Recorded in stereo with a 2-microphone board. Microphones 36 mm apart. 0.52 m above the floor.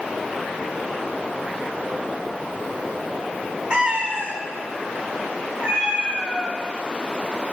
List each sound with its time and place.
3.7 s a cat meowing: 30° right (ahead or behind), 1.1 m; by 6.6 s 80° right, 4.5 m